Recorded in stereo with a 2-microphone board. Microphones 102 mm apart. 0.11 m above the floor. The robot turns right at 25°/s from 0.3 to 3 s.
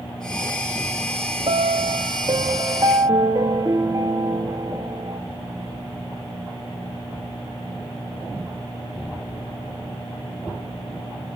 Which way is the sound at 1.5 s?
80° right.